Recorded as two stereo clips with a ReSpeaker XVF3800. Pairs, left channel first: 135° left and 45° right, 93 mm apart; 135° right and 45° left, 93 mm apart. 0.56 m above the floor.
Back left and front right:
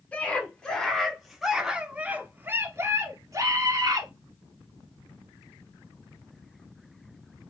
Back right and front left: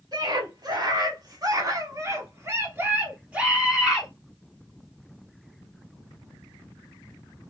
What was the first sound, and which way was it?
A scream, 65° left.